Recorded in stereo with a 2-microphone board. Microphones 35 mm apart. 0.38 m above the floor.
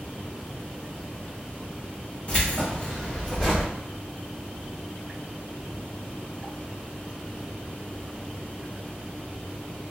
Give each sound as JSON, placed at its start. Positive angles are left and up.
{"t": 2.3, "sound": "keys jangling", "side_deg": 35, "distance_m": 1.4}